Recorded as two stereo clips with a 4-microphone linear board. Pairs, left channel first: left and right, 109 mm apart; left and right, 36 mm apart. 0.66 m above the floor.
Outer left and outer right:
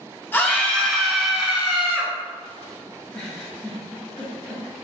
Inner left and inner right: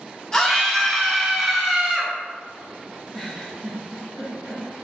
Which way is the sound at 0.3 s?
20° left (ahead or behind).